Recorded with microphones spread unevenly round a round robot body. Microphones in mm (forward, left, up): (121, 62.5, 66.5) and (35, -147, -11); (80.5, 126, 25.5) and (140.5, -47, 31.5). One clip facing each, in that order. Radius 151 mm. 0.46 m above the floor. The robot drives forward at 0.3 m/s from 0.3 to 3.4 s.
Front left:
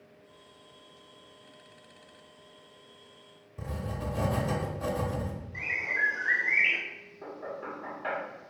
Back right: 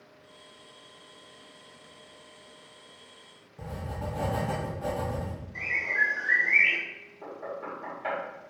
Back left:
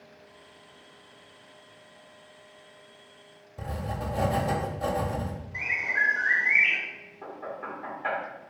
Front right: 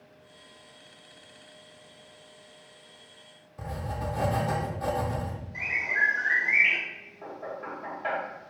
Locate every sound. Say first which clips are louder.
3.6 s writing: front left 1 dB, back left 1 dB; 70° left, 0.7 m
5.5 s a bird: back right 1 dB, even; 155° left, 0.8 m
7.2 s knocking: back right 1 dB, even; 175° left, 1.1 m